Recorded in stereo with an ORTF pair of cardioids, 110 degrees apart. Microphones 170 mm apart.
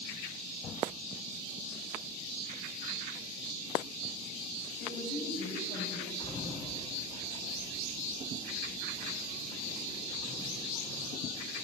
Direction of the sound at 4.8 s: 70° left.